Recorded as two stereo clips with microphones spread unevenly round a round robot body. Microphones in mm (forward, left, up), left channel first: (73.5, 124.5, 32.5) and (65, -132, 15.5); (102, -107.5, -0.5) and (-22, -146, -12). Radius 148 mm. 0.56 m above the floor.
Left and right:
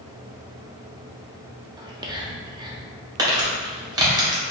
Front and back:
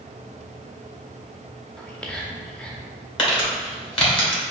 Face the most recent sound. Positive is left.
turn(degrees=-25)